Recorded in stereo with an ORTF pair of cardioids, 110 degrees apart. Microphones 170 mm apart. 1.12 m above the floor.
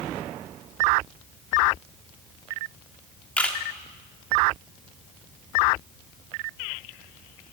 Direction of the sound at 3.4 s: 10° left.